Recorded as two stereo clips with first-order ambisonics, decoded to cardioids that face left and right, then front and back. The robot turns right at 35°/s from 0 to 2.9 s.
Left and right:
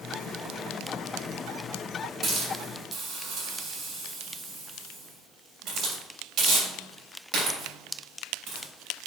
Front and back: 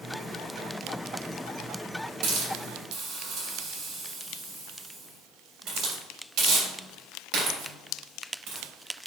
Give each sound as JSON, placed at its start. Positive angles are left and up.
{"t": 2.2, "sound": "a hiss", "azimuth_deg": -165, "distance_m": 3.5}